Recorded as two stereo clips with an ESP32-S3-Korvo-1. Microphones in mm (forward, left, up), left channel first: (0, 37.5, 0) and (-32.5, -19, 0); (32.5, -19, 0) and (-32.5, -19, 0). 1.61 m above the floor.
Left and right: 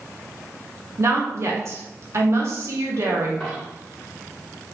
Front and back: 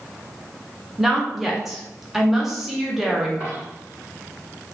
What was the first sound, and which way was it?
A woman speaking, 95° right.